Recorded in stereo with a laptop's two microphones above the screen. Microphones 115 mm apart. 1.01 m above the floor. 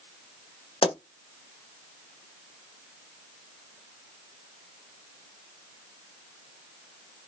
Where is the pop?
55° left (ahead or behind), 1.4 m.